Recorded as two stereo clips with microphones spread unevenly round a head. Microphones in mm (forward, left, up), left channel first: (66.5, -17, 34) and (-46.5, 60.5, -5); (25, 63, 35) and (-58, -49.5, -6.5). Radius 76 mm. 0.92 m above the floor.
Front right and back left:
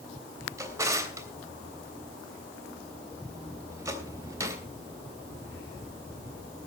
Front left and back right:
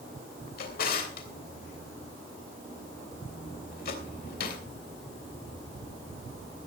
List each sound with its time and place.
0.6 s a drawer: 75° left, 3 m